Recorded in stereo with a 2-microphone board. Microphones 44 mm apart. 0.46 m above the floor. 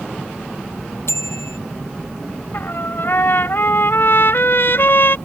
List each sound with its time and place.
1.1 s a bicycle bell: 85° left
2.5 s a trumpet: 65° left (ahead or behind)